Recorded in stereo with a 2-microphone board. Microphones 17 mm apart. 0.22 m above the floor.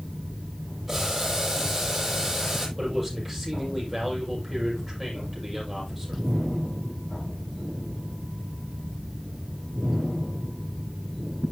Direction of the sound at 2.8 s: Centre (ahead or behind).